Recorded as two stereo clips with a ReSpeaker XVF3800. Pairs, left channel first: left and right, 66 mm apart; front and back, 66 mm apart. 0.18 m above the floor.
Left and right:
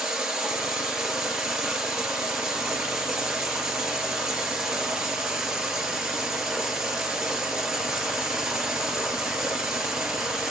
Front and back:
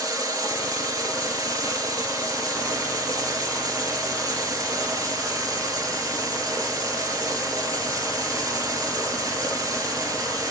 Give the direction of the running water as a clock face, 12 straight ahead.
6 o'clock.